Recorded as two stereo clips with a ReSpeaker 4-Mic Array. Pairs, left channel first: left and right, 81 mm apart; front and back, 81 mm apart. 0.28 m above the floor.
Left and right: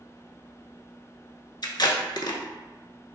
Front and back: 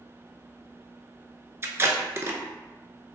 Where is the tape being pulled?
120° left, 0.5 m.